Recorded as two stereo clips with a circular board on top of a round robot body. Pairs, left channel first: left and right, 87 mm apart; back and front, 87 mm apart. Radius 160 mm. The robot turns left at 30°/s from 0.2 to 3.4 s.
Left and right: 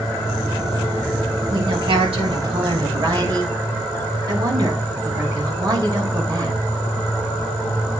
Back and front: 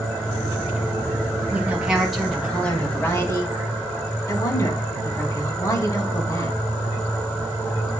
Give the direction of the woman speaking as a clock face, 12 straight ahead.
2 o'clock.